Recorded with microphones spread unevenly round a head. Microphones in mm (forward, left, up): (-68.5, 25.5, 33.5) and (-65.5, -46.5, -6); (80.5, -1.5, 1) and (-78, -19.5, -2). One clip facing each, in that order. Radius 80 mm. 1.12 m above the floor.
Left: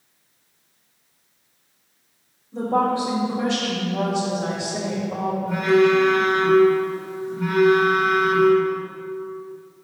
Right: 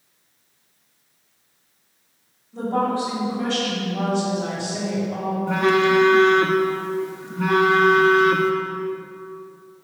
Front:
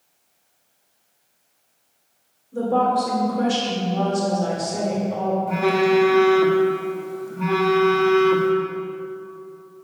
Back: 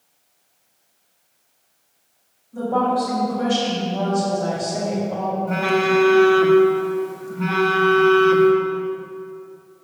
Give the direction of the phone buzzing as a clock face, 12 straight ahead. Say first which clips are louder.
Left 1 dB, front 1 dB; 3 o'clock.